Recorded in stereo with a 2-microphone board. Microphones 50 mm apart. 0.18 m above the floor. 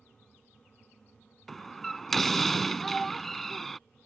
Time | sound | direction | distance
1.5 | a door slam | 5° left (ahead or behind) | ?
2.8 | a child speaking | 5° left (ahead or behind) | ?